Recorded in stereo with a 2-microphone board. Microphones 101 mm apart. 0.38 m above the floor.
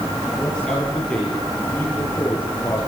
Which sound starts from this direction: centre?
A man speaking, at 0.4 s.